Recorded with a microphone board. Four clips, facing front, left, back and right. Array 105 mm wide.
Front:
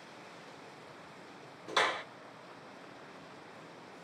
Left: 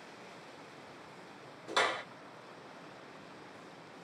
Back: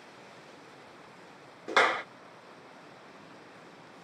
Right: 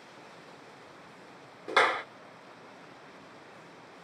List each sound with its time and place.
1.7 s a clap: 145° right, 1.3 m